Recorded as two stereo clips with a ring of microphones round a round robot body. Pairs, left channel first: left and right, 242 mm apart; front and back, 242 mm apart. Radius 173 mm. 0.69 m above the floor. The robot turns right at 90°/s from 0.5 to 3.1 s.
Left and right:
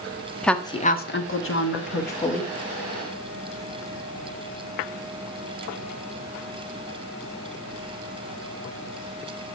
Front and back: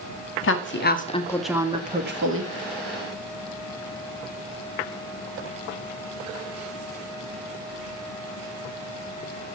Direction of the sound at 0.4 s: 5° left.